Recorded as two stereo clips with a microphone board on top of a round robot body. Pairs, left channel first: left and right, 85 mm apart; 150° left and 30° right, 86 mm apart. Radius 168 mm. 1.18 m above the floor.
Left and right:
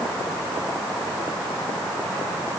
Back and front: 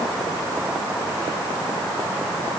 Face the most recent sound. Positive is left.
No sound to turn to.